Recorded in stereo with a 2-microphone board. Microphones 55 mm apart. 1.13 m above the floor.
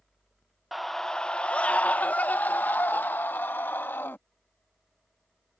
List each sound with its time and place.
0.7 s a scream: centre (ahead or behind); by 4.2 s 45° left (ahead or behind)